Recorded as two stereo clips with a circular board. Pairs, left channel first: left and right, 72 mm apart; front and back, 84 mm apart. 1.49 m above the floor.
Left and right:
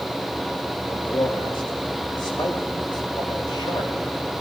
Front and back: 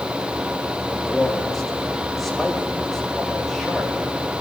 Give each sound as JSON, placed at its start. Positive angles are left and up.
{"t": 0.9, "sound": "a man speaking", "azimuth_deg": 90, "distance_m": 2.5}